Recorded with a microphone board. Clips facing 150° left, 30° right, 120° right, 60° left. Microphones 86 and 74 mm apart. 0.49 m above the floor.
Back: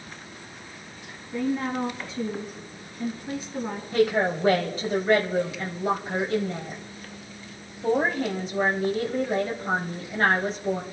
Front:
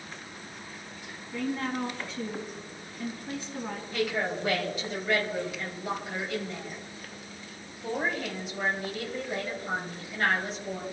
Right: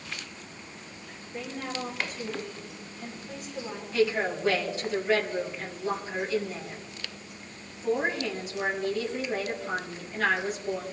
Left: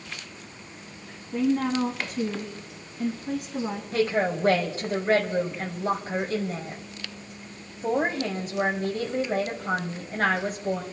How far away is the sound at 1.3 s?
About 4 m.